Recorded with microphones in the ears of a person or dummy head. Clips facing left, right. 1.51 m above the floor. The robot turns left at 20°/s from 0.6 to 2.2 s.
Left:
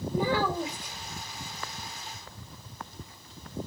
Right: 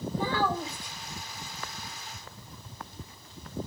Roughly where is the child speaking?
Centre.